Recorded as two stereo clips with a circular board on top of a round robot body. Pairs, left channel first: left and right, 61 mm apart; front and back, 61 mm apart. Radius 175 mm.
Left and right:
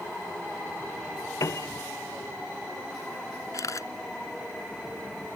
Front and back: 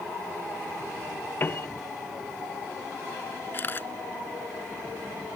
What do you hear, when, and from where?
1.4 s a piano: 55° left
3.5 s a camera shutter: 60° left